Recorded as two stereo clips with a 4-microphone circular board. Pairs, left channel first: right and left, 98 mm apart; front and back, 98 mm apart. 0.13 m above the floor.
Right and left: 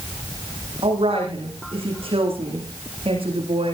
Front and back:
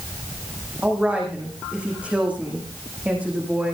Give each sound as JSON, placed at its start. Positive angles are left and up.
{"t": 0.8, "sound": "a woman speaking", "azimuth_deg": 105, "distance_m": 9.5}